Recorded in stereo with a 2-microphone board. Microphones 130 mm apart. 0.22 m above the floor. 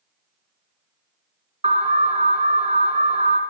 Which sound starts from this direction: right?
An alarm, at 1.6 s.